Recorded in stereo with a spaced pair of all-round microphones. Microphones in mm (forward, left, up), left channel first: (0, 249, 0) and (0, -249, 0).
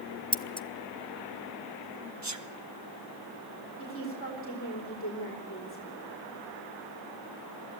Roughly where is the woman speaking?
Left.